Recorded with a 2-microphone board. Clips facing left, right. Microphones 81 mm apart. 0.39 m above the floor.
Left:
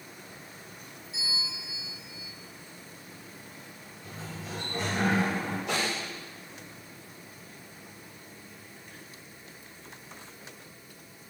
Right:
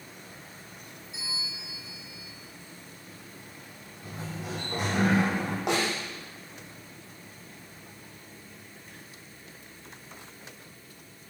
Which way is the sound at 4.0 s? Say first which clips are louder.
Right 4 dB; 65° right (ahead or behind).